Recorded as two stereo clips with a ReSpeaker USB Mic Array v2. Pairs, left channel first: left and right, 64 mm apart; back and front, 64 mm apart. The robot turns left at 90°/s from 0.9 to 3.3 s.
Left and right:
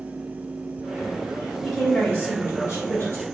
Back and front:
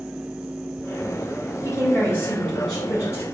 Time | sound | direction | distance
1.6 | a woman speaking | 170° right | 1.9 m